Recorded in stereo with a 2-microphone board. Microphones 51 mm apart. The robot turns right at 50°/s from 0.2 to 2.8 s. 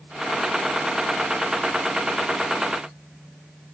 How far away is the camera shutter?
No camera shutter in this recording.